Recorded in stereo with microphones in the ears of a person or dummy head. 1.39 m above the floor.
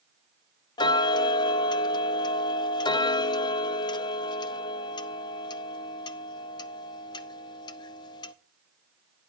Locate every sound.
0.8 s ticking: 20° left (ahead or behind), 0.5 m